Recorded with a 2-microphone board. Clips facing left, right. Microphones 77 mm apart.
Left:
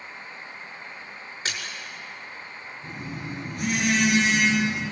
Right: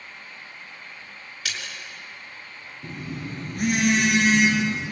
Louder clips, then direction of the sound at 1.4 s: Left 1 dB; 30° left (ahead or behind).